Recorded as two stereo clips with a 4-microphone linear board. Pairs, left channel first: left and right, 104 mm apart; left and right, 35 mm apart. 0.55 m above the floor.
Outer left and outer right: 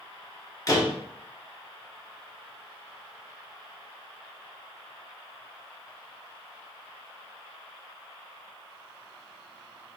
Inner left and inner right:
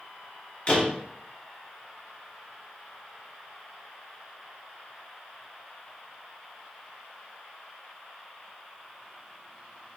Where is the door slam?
35° left (ahead or behind), 0.9 m.